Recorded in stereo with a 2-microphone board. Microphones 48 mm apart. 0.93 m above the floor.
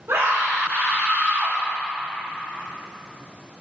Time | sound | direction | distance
0.1 | a scream | 70° right (ahead or behind) | 2 m